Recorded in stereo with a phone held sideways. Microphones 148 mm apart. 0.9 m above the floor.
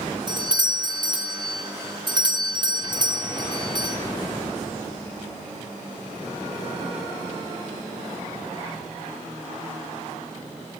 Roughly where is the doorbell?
Right.